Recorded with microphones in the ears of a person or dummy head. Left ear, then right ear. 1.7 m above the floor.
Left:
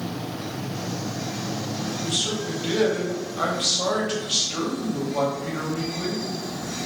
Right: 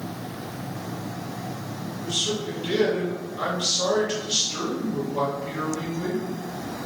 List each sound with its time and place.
2.0 s a man speaking: 20° left (ahead or behind), 0.7 m